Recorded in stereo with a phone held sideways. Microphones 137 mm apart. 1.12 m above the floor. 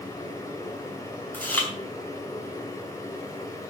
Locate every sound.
0.0 s a machine running: 20° left (ahead or behind), 3 m
1.3 s chewing: 15° left (ahead or behind), 4 m